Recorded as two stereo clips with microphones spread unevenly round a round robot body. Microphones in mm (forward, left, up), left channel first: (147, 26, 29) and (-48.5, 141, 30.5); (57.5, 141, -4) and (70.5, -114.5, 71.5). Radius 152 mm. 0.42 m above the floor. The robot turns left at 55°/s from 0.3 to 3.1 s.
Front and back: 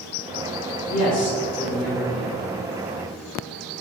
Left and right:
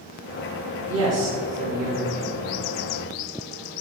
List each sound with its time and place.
0.9 s a man speaking: 60° right, 1.0 m; by 2.4 s 145° right, 1.0 m